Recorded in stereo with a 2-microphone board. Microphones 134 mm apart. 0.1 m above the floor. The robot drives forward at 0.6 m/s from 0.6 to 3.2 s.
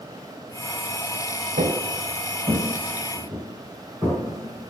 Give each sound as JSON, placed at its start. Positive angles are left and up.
{"t": 1.6, "sound": "footsteps", "side_deg": -80, "distance_m": 0.7}